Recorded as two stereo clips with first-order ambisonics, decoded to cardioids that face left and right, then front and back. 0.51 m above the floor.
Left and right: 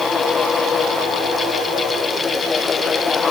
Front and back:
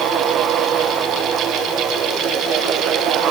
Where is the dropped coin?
No dropped coin in this recording.